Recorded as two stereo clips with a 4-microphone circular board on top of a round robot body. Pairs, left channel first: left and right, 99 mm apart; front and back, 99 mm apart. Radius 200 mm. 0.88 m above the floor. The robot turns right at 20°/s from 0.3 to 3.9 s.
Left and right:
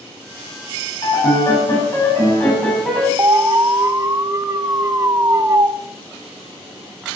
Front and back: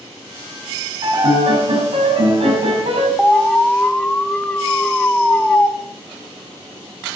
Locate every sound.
1.0 s a piano: 135° left, 5.5 m; by 3.1 s 175° left, 5.5 m
3.2 s an alarm: 80° right, 1.4 m; by 5.7 s 65° right, 1.4 m